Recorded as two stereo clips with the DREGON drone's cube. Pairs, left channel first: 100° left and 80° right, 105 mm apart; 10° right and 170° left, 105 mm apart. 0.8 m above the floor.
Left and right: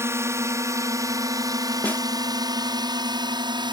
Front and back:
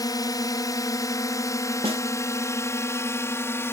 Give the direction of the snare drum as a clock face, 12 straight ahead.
6 o'clock.